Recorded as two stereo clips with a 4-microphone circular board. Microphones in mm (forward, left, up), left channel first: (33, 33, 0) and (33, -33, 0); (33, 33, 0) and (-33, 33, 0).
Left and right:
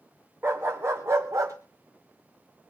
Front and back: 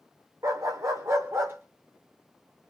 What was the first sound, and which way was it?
A dog barking, 145° right.